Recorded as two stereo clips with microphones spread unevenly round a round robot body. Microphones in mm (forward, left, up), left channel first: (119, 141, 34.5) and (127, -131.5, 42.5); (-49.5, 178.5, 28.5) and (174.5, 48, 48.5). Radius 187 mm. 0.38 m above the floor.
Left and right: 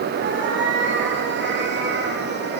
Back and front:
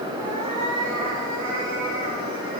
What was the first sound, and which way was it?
A cat meowing, 45° right.